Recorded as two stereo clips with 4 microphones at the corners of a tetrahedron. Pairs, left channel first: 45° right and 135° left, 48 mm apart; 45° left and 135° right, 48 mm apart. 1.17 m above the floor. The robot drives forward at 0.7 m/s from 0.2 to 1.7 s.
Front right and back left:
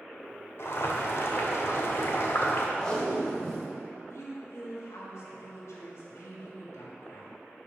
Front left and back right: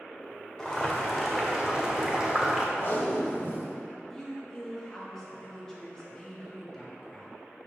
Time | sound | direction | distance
0.6 | boiling | 35° right | 1.7 m
2.8 | tape being pulled | 25° left | 1.2 m
4.1 | a woman speaking | 30° right | 1.8 m